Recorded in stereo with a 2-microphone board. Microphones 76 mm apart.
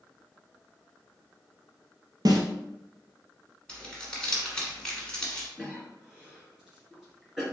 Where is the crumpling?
10° left (ahead or behind), 1.2 m.